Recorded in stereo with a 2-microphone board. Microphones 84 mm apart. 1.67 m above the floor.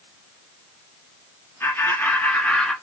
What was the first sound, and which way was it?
Laughter, 35° left (ahead or behind).